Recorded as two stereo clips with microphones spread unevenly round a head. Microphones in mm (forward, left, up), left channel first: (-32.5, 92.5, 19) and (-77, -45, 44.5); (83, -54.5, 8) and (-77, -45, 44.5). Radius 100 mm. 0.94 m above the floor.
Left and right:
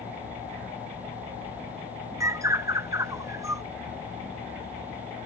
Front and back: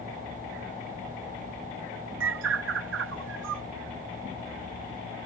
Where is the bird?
Straight behind.